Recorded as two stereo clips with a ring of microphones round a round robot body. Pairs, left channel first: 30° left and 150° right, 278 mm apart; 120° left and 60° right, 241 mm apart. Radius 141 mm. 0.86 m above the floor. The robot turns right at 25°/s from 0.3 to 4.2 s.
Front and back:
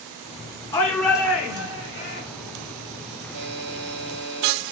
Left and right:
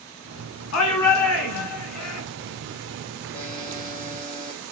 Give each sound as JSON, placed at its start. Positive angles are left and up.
{"t": 0.7, "sound": "a shout", "azimuth_deg": 110, "distance_m": 2.5}
{"t": 3.3, "sound": "a buzzer", "azimuth_deg": -175, "distance_m": 5.5}